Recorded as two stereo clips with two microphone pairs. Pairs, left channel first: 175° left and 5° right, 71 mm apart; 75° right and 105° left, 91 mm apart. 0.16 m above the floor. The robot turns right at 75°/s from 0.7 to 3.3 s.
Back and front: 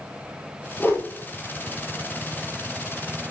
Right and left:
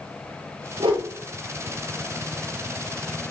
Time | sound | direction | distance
0.8 | a whoosh | 115° left | 2.5 m